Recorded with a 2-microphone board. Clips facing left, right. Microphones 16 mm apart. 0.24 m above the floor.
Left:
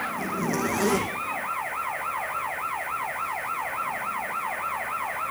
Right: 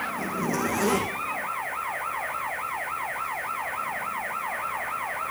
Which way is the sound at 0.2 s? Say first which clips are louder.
Even; 25° left (ahead or behind).